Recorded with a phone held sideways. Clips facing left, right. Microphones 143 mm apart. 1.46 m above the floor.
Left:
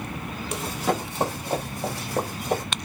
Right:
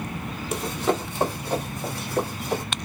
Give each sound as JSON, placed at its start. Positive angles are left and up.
{"t": 0.5, "sound": "running footsteps", "side_deg": 0, "distance_m": 1.7}